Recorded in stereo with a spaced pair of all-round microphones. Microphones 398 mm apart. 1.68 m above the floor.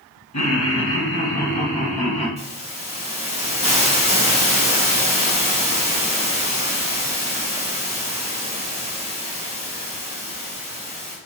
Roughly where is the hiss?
Centre.